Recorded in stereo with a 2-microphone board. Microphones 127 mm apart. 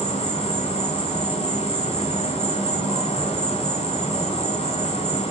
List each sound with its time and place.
0.0 s an insect: 60° left (ahead or behind), 2.5 m